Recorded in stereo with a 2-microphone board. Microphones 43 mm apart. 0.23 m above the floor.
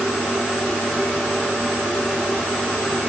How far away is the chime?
No chime in this recording.